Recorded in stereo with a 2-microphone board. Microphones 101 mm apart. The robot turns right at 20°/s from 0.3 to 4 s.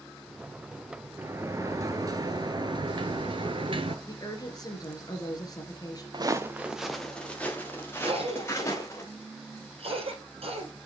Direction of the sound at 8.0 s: 70° right (ahead or behind).